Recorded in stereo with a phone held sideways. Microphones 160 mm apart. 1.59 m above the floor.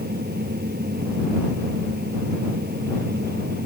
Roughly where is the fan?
Right.